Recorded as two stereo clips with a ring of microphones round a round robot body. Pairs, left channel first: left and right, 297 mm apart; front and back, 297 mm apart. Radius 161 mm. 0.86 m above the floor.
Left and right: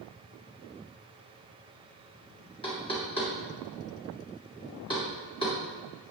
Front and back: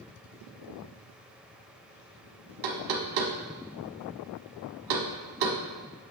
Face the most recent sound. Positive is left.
turn(degrees=165)